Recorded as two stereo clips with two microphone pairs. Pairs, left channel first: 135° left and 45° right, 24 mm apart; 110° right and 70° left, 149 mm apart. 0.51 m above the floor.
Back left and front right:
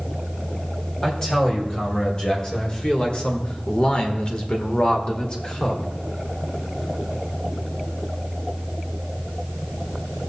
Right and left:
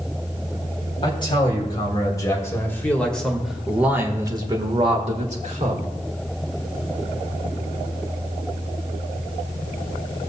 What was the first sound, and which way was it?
A man speaking, 160° right.